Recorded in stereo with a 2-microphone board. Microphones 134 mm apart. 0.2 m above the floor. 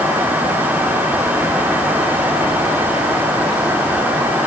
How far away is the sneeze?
I don't hear a sneeze.